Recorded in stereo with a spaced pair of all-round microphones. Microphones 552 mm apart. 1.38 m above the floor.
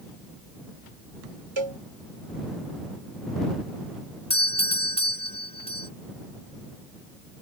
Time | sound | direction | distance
1.6 | a cowbell | 55° right (ahead or behind) | ?
4.3 | a doorbell | 10° left (ahead or behind) | ?